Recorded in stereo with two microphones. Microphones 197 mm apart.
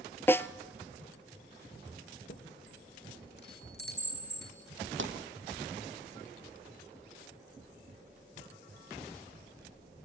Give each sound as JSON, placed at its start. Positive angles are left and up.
{"t": 0.3, "sound": "a snare drum", "side_deg": 10, "distance_m": 0.6}
{"t": 2.3, "sound": "a chime", "side_deg": 55, "distance_m": 4.0}
{"t": 5.0, "sound": "a pop", "side_deg": -75, "distance_m": 2.0}